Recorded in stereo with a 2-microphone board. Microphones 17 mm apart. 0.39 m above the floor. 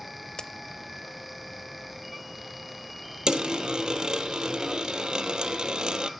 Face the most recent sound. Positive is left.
turn(degrees=-60)  # may be behind; listen again after turning